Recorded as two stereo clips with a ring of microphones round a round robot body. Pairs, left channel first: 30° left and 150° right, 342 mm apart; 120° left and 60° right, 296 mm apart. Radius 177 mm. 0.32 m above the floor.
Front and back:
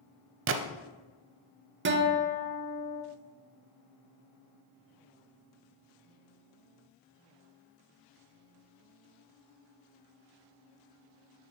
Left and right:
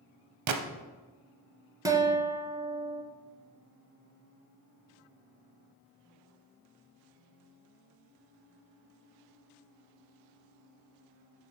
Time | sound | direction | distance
0.5 | a gunshot | 95° right | 0.6 m
1.9 | a guitar | 130° right | 0.7 m